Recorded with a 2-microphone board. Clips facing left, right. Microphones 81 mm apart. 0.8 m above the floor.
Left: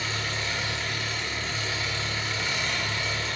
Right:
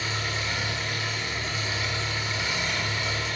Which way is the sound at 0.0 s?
10° right (ahead or behind).